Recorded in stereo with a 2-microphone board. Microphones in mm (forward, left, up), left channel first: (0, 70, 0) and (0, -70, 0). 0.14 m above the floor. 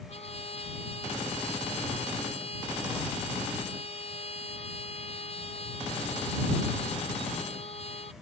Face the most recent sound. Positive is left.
turn(degrees=45)  # may be behind; listen again after turning